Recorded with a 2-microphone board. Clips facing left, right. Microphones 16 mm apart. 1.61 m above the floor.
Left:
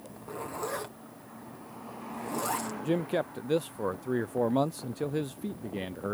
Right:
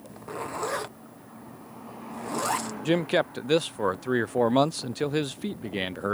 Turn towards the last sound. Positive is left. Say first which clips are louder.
# right 6 dB
turn(degrees=-45)  # may be behind; listen again after turning